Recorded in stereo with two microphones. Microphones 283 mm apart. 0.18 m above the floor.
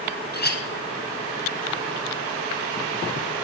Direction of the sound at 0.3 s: 35° left (ahead or behind).